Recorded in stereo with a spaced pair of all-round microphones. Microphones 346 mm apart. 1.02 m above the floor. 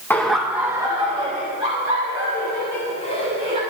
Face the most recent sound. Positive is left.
turn(degrees=-20)  # may be behind; listen again after turning